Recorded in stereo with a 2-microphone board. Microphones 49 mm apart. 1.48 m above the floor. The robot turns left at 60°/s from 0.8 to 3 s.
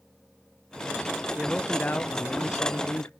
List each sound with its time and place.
1.4 s a man speaking: 175° left, 0.5 m; by 3.1 s 80° left, 0.5 m